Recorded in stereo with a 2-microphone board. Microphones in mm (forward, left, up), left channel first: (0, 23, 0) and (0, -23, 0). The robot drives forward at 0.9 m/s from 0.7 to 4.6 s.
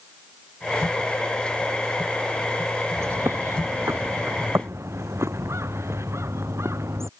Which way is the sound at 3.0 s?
75° right (ahead or behind).